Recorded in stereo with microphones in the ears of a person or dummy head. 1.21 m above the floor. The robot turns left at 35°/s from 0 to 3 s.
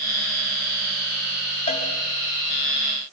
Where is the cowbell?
35° left (ahead or behind), 4.5 m; by 1.9 s 40° left (ahead or behind), 4.5 m.